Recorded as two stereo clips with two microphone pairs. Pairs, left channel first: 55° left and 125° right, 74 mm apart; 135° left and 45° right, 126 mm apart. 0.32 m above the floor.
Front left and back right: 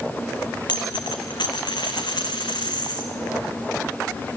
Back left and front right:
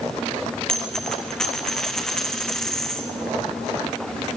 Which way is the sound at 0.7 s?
50° left.